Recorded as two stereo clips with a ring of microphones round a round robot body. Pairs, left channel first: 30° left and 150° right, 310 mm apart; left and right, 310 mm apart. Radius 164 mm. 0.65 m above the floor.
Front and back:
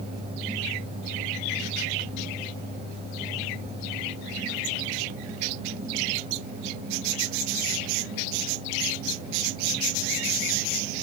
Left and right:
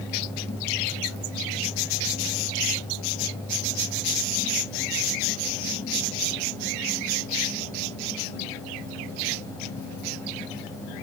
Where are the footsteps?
I don't hear footsteps.